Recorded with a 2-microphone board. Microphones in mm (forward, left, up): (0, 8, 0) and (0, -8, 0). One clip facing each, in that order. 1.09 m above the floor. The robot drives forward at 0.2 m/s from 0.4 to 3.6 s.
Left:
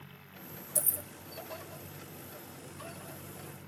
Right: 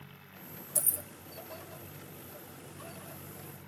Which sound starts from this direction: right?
Keys jangling, at 0.8 s.